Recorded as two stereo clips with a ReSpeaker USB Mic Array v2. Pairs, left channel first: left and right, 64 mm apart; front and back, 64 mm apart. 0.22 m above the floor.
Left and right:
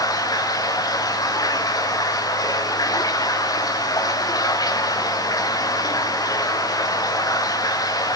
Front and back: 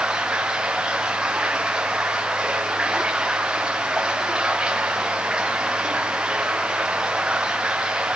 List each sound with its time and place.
0.0 s running water: 100° left, 3.5 m